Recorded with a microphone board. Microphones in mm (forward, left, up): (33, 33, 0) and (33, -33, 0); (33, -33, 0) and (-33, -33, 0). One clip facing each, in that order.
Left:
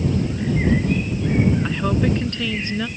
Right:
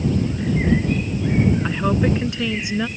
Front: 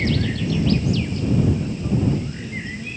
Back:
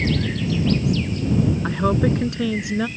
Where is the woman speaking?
170° right; by 2.9 s 165° right.